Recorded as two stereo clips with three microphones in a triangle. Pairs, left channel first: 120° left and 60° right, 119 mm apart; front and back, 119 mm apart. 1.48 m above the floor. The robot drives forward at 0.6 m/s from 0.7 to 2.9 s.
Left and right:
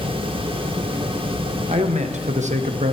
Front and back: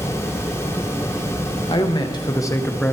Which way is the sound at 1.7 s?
40° right.